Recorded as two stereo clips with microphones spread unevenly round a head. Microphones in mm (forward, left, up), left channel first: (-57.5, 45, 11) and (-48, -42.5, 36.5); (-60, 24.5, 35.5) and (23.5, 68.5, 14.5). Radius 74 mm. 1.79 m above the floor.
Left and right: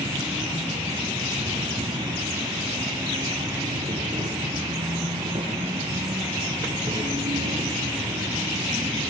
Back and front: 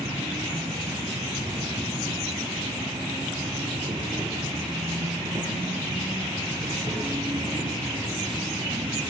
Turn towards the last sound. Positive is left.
turn(degrees=-45)